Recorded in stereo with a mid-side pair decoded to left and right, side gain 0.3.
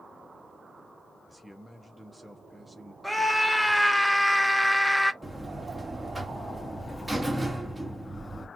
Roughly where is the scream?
Ahead.